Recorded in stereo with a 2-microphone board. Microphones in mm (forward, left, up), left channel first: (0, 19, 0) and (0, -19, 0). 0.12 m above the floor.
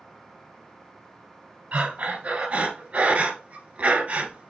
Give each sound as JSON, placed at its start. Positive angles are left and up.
{"t": 1.7, "sound": "breathing", "side_deg": -35, "distance_m": 0.8}